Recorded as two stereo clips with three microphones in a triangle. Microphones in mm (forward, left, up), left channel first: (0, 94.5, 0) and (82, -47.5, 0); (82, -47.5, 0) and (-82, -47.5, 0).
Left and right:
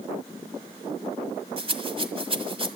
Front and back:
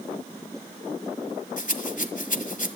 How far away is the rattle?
About 1.3 m.